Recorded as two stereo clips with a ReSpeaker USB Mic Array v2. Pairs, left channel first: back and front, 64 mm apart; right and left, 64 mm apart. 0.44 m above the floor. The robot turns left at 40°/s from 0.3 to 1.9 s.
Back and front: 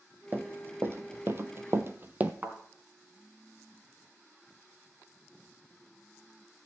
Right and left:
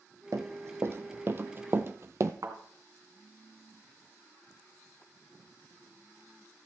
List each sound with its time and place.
0.3 s running footsteps: 55° left, 1.3 m; by 2.3 s 65° left, 0.9 m
2.4 s a thud: 65° left, 2.5 m